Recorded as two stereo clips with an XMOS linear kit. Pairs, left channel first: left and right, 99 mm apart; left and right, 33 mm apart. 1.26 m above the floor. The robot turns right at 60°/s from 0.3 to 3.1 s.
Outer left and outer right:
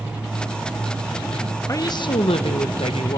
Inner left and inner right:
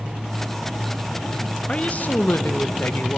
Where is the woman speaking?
30° left, 1.0 m; by 3.2 s 115° left, 1.0 m.